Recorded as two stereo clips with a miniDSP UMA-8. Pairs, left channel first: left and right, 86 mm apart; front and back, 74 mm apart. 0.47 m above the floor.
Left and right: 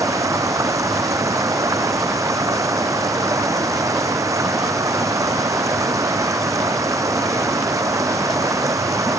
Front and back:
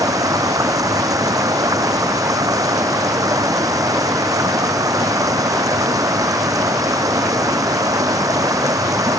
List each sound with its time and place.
0.0 s running water: 140° right